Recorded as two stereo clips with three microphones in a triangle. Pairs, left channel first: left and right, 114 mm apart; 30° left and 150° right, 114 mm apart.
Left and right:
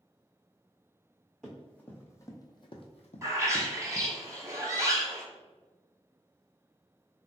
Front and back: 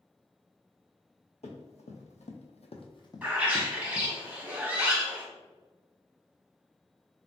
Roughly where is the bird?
Right.